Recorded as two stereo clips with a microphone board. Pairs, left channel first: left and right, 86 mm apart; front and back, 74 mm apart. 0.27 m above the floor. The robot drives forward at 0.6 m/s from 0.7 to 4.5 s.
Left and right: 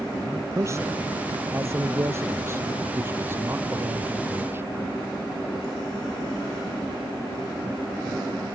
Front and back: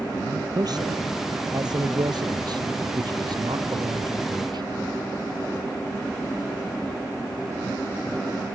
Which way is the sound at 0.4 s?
150° right.